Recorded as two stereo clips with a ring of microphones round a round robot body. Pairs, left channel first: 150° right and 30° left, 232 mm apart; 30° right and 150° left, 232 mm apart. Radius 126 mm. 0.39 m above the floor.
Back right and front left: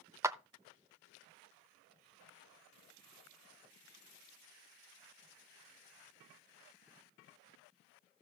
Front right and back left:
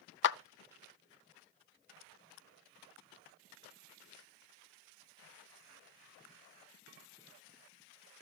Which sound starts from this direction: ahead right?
A clap, at 0.2 s.